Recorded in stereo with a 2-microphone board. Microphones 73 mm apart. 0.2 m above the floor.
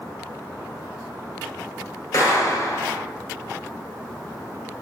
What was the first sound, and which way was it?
A clap, 45° left (ahead or behind).